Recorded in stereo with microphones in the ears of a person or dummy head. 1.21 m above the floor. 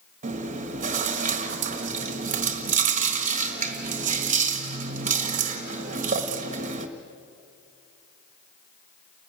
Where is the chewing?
40° right (ahead or behind), 1.3 m.